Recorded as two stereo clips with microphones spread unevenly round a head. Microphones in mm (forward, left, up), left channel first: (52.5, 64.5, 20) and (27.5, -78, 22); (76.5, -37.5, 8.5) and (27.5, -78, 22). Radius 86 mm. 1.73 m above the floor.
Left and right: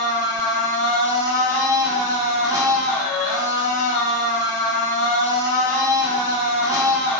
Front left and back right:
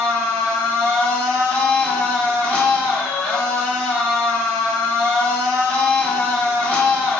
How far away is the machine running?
About 1.1 m.